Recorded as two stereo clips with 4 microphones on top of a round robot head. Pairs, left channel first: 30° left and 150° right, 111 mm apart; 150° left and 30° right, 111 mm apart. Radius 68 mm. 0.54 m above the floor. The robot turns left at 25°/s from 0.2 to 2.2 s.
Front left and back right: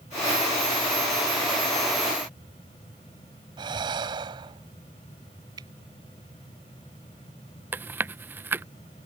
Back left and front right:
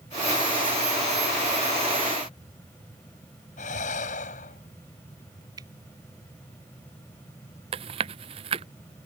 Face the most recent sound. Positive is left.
turn(degrees=-75)